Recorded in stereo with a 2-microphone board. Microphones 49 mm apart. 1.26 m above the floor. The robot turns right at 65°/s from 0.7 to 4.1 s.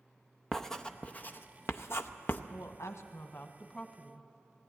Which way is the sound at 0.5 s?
10° left (ahead or behind).